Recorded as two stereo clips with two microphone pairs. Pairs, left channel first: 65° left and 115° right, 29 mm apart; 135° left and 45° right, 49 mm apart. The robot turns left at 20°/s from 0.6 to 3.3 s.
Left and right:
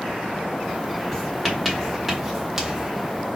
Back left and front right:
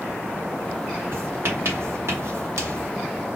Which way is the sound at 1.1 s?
15° right.